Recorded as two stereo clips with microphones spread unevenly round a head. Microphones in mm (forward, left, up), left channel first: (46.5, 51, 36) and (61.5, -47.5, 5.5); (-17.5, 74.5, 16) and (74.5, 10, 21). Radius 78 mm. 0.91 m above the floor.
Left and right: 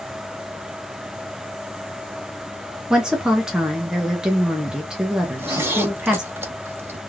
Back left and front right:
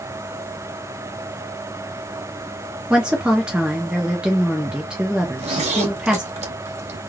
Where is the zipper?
15° right, 1.0 m.